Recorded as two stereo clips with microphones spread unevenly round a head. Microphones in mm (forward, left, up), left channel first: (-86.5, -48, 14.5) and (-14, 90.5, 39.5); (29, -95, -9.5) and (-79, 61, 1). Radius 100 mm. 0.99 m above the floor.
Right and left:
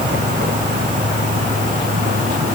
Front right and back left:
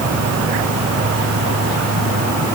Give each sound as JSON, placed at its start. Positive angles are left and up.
{"t": 0.0, "sound": "an insect", "azimuth_deg": 100}